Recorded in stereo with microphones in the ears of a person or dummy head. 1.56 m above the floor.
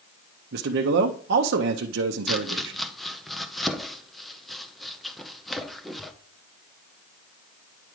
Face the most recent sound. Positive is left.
turn(degrees=0)  # may be behind; listen again after turning